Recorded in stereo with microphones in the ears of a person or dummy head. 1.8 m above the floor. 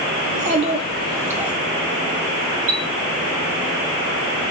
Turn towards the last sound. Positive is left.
turn(degrees=-50)  # may be behind; listen again after turning